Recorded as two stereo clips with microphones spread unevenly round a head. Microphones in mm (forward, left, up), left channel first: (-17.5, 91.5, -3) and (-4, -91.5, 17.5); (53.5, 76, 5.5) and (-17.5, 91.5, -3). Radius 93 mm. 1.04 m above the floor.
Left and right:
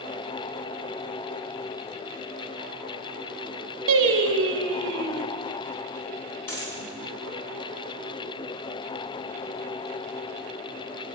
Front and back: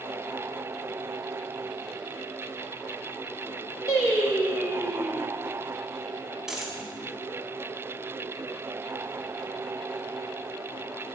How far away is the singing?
About 1.3 m.